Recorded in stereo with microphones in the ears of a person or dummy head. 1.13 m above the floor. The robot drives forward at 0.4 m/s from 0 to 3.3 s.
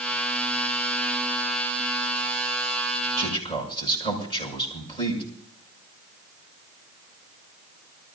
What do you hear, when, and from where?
3.2 s a man speaking: 20° left (ahead or behind), 7 m